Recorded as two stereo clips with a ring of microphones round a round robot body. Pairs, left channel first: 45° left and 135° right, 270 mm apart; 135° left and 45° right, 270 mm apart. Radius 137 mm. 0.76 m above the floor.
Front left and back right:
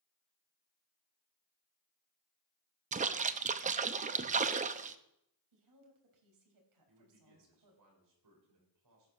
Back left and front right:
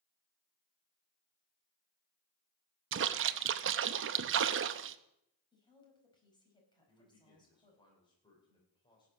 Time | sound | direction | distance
2.9 | a splash | 75° right | 0.7 m
5.5 | a woman speaking | 150° right | 4.5 m
6.9 | a man speaking | 150° right | 4 m